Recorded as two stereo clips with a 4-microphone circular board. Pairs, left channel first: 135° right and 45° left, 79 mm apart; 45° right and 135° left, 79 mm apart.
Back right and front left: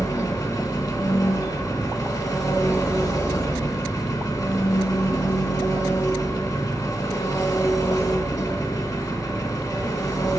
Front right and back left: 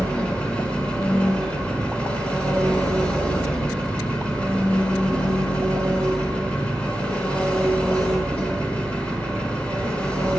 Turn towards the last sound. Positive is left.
turn(degrees=-115)